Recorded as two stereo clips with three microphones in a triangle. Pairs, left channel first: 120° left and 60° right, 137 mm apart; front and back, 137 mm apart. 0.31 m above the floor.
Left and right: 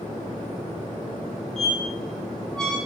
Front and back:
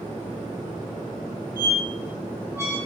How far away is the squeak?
About 0.7 m.